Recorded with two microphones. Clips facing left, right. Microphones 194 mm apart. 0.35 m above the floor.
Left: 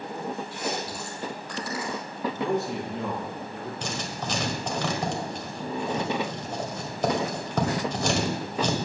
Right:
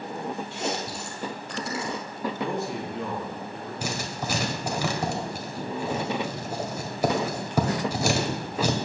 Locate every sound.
0.5 s chewing: 25° right (ahead or behind), 2.5 m
2.3 s a man speaking: 45° left (ahead or behind), 6 m
3.8 s writing: 10° right (ahead or behind), 1.6 m